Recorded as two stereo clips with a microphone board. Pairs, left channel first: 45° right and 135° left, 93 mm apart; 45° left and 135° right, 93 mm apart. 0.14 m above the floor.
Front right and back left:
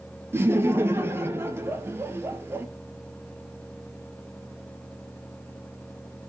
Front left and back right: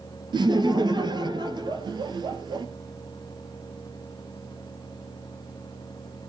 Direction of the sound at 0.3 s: 165° right.